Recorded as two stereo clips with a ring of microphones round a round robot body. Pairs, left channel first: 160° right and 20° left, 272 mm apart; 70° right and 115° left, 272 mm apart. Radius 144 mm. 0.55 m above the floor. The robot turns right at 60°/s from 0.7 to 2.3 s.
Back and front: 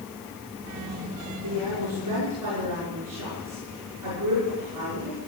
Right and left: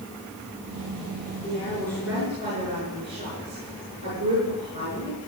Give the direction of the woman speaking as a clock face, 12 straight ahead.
12 o'clock.